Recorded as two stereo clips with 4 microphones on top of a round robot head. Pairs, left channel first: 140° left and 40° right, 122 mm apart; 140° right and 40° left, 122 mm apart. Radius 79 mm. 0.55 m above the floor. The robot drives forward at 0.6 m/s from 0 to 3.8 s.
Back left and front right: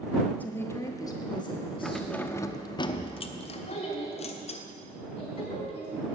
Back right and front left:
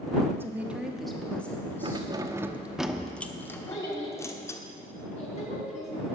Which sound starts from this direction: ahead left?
Keys jangling, at 1.8 s.